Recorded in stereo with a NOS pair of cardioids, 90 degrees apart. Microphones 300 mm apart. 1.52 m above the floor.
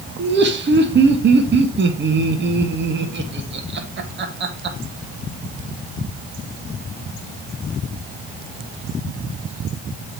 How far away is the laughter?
About 2 m.